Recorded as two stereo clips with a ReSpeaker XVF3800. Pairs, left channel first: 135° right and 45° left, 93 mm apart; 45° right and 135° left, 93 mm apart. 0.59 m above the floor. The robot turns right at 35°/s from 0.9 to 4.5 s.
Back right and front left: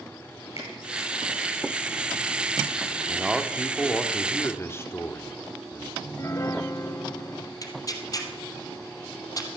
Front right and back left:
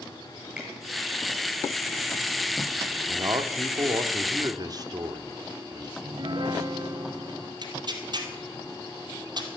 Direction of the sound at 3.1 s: 115° left.